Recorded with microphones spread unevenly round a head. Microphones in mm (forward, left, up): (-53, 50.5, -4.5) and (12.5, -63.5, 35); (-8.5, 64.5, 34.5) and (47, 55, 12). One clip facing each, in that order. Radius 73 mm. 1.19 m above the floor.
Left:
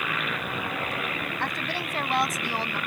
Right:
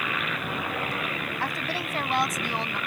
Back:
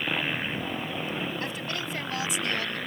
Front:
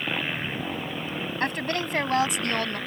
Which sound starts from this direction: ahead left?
A woman speaking, at 1.4 s.